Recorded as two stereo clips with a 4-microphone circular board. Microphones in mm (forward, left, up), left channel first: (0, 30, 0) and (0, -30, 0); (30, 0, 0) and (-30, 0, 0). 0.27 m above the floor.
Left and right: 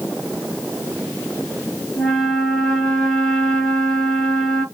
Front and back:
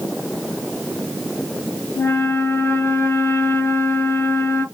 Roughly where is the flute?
Ahead.